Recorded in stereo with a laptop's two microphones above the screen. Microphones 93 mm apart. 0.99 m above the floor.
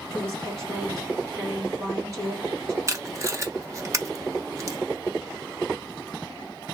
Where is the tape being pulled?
35° right (ahead or behind), 0.6 m.